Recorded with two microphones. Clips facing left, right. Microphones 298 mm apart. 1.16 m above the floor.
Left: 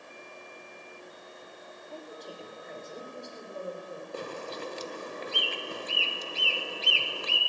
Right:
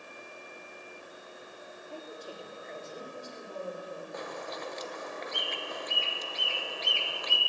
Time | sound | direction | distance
1.9 | a woman speaking | 10° right (ahead or behind) | 2 m
4.1 | a bird | 35° left (ahead or behind) | 0.8 m